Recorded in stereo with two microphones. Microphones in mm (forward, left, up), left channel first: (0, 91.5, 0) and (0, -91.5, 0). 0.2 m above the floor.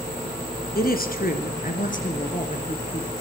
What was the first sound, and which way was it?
A woman speaking, 55° left (ahead or behind).